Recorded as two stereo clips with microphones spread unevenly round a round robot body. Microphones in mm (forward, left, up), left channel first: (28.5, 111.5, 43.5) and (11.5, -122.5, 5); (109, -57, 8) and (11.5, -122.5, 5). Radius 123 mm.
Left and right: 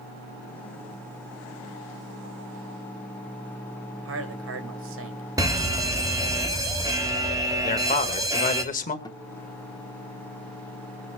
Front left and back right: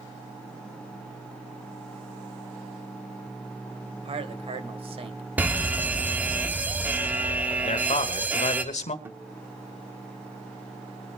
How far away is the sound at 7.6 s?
About 1.6 m.